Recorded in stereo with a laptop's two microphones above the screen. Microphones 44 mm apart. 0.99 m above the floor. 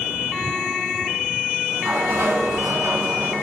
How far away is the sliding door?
About 5.5 m.